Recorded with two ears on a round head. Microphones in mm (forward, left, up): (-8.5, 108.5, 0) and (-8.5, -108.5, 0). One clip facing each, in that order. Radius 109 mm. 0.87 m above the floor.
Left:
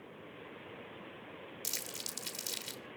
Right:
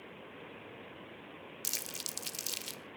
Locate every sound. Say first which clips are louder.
1.6 s crumpling: even; 15° right (ahead or behind), 1.2 m